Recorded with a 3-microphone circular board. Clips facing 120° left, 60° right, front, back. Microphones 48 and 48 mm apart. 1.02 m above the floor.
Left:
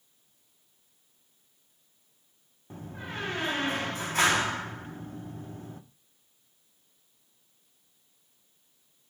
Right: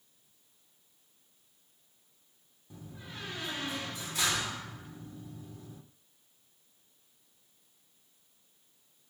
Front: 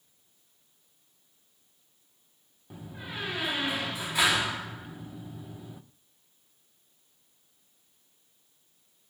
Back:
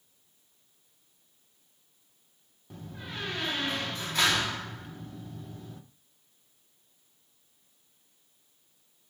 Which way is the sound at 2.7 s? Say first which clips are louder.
Left 8 dB, front 1 dB; 80° left.